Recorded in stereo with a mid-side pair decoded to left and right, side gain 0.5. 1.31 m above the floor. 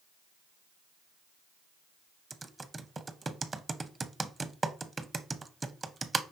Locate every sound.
2.3 s typing on a keyboard: 25° right, 0.6 m